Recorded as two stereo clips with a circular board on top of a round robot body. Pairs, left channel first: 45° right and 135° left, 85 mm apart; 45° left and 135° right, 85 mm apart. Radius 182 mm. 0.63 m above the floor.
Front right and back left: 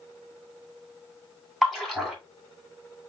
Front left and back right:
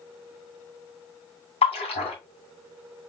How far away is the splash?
About 2.5 m.